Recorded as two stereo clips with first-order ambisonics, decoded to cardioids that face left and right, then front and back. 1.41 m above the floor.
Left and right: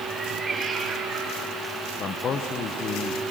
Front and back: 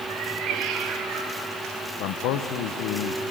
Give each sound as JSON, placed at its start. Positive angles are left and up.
{"t": 0.1, "sound": "a cat meowing", "azimuth_deg": 180, "distance_m": 1.0}
{"t": 2.0, "sound": "a man speaking", "azimuth_deg": 30, "distance_m": 0.8}